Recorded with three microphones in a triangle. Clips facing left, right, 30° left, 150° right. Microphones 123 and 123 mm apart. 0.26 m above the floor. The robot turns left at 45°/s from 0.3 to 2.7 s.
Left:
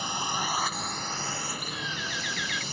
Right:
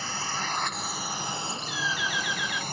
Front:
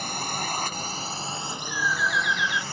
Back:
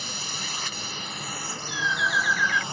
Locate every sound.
0.0 s a drone: 20° left; by 2.7 s 85° right
1.7 s a bird: 145° left; by 2.6 s 100° left